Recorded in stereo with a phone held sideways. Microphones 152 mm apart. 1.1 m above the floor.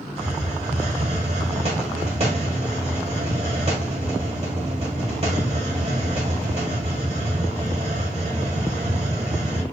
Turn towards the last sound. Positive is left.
turn(degrees=-40)  # may be behind; listen again after turning